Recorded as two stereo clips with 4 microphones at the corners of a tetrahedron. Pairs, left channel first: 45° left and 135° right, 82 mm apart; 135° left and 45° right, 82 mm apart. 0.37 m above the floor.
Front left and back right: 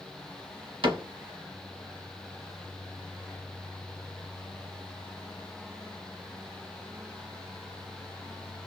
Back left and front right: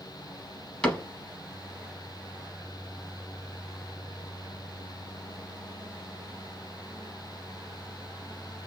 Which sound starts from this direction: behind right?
A cupboard door, at 0.8 s.